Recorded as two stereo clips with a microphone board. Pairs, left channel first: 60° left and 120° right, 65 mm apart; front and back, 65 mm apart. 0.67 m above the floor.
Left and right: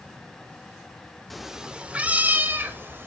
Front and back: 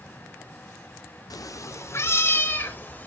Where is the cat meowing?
30° right, 0.6 m; by 3.1 s 65° right, 1.4 m.